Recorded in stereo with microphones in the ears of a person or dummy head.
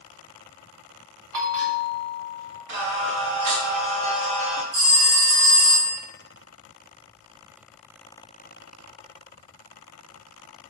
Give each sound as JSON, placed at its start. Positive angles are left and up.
{"t": 1.3, "sound": "a bell", "side_deg": -80, "distance_m": 0.7}
{"t": 2.7, "sound": "singing", "side_deg": -50, "distance_m": 0.8}
{"t": 4.7, "sound": "a phone ringing", "side_deg": -75, "distance_m": 1.8}